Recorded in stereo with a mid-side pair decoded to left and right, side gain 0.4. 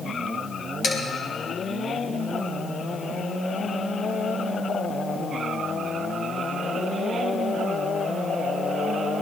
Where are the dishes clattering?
55° left, 5 m.